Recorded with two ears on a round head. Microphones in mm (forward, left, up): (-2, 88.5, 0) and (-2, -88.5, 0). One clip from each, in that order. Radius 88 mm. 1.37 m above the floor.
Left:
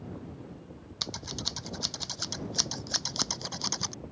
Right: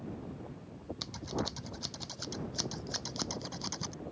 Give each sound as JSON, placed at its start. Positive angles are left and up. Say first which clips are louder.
{"t": 1.0, "sound": "scissors", "louder": "left 4 dB", "side_deg": 35}